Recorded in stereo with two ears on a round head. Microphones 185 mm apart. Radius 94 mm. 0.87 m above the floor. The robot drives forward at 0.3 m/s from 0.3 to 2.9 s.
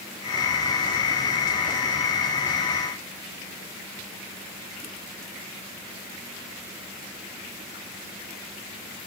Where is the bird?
I don't hear a bird.